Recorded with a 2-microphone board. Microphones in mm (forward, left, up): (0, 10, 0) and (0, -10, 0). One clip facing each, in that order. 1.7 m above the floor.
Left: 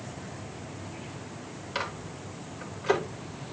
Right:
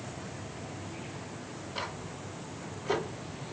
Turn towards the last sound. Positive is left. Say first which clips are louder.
# left 5 dB
turn(degrees=65)  # may be behind; listen again after turning